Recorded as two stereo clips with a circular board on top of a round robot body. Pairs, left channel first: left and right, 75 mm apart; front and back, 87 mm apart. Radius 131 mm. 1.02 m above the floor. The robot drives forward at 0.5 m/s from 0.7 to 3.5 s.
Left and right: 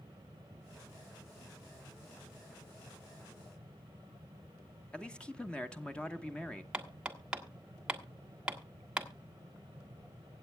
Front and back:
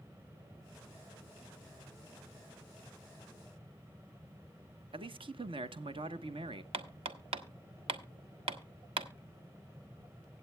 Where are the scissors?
I don't hear scissors.